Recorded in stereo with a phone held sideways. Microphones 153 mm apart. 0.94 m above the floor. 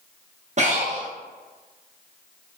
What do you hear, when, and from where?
0.6 s breathing: 50° right (ahead or behind), 0.6 m